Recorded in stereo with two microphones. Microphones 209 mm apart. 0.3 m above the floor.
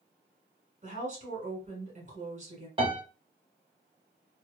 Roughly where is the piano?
Right.